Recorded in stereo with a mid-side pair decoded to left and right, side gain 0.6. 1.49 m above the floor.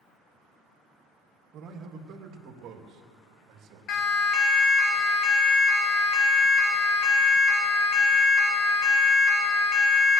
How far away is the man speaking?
About 2 m.